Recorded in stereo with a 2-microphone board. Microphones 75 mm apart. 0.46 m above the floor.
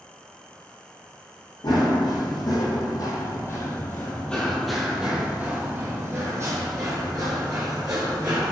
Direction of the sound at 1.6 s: 70° left (ahead or behind).